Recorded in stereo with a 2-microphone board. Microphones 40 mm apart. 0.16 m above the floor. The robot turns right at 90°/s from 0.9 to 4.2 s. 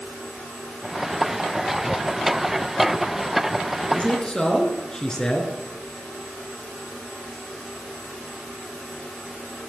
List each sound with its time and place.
3.9 s a man speaking: 35° left (ahead or behind), 2.5 m; by 5.5 s 15° left (ahead or behind), 2.5 m